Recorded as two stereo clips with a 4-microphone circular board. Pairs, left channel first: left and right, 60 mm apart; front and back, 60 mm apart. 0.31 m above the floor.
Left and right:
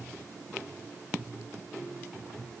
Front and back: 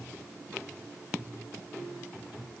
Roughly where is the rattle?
I don't hear a rattle.